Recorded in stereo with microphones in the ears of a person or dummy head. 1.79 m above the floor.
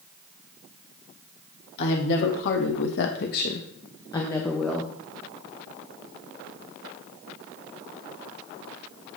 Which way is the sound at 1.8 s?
70° left (ahead or behind).